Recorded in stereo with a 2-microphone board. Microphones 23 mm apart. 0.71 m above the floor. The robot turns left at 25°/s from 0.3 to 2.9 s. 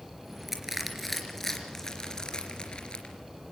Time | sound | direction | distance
0.5 | crushing | 15° right (ahead or behind) | 3 m